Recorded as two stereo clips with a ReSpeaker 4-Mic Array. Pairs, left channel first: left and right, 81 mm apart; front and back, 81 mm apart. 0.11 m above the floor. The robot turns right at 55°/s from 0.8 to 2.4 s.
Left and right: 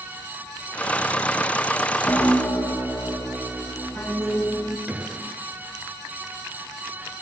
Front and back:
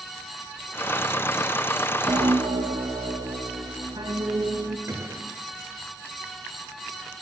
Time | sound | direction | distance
2.1 | a piano | 150° left | 4.5 m
4.9 | a gunshot | 155° right | 1.2 m